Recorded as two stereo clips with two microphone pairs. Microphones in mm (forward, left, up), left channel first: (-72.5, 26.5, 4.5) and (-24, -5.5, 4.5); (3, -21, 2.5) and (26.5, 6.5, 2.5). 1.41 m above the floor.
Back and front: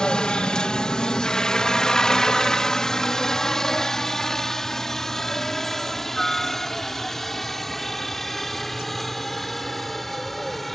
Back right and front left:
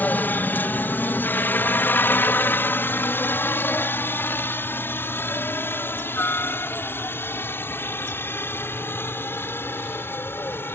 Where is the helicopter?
140° right; by 10.8 s 125° right.